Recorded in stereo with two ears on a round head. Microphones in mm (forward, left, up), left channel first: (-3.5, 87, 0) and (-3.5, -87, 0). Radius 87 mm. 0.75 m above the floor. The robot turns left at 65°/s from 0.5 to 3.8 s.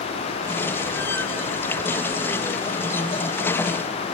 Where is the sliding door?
No sliding door in this recording.